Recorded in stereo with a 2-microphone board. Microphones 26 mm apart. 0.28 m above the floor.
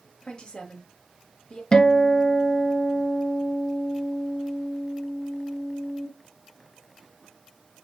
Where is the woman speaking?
35° left (ahead or behind), 1.0 m.